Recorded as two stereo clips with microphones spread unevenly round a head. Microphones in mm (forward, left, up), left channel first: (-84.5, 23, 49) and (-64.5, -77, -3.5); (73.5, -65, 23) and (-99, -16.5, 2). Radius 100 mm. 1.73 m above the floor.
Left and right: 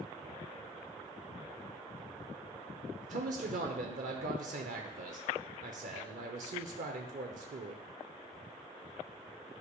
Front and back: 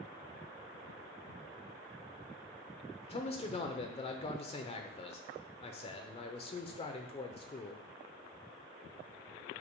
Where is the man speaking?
70° right, 0.7 m.